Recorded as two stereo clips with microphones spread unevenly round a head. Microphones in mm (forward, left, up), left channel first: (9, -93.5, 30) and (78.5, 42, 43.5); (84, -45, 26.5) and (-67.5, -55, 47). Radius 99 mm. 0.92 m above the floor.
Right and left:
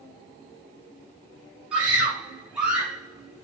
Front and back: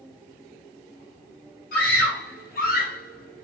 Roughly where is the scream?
Ahead.